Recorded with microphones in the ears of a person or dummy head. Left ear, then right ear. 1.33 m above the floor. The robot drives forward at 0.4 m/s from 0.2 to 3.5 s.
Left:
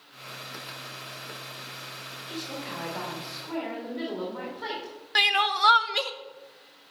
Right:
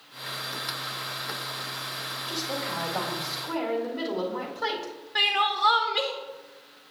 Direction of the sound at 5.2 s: 70° left (ahead or behind).